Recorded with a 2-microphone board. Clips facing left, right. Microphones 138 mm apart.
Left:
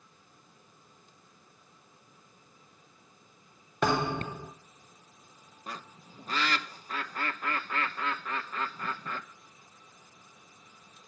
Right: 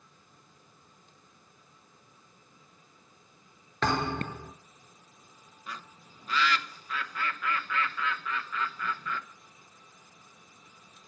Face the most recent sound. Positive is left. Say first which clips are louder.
# left 1 dB
turn(degrees=40)  # may be behind; listen again after turning